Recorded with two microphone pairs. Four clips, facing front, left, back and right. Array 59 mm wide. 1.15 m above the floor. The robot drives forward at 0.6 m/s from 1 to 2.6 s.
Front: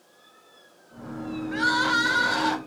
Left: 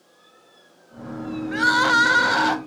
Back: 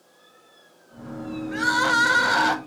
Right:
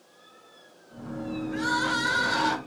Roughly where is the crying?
Left.